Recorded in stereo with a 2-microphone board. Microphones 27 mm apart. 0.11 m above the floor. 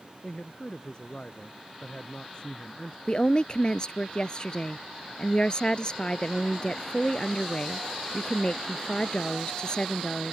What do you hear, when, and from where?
0.2 s a man speaking: 35° left (ahead or behind)
3.1 s a woman speaking: 35° left (ahead or behind)